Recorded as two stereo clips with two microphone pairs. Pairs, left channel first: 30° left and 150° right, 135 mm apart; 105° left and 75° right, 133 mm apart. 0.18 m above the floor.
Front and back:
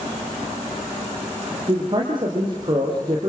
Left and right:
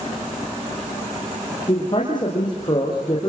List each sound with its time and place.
1.7 s a man speaking: 160° left, 5 m